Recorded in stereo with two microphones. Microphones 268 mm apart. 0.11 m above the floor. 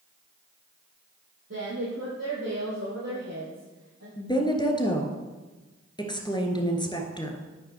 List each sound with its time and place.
1.5 s a woman speaking: 60° right (ahead or behind), 4 m; by 4.1 s 70° right (ahead or behind), 5 m
4.2 s a woman speaking: 15° left (ahead or behind), 1.6 m